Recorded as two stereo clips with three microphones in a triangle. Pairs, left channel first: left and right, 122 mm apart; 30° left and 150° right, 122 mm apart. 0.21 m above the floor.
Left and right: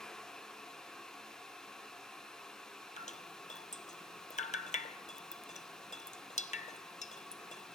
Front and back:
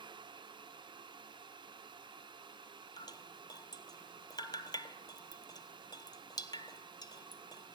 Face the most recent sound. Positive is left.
turn(degrees=85)